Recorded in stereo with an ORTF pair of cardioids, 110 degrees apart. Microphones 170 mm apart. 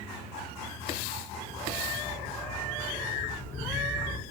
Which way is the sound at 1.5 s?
10° left.